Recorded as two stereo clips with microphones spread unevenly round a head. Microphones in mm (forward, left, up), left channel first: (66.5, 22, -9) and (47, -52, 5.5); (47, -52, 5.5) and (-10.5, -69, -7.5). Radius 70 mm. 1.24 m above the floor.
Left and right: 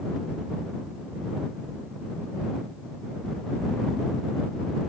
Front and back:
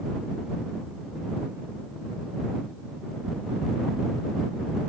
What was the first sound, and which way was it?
Only background noise.